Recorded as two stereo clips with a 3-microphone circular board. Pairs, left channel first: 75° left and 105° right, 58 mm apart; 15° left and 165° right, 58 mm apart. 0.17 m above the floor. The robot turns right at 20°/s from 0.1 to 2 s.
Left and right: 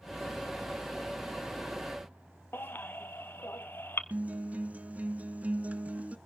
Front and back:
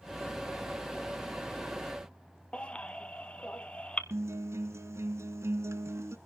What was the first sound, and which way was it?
A baby crying, 75° left.